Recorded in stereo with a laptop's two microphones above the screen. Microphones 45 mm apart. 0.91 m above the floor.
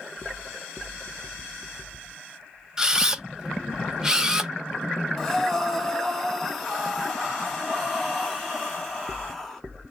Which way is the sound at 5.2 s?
5° left (ahead or behind).